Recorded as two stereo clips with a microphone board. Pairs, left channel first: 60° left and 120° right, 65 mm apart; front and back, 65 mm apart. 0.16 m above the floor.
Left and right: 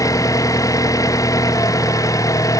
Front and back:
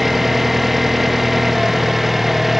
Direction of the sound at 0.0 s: 90° left.